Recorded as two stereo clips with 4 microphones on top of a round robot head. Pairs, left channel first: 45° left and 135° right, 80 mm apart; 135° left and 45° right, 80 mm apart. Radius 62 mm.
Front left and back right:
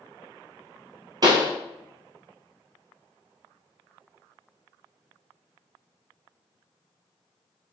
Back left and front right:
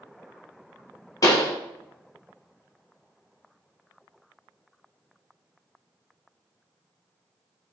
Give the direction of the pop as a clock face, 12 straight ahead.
6 o'clock.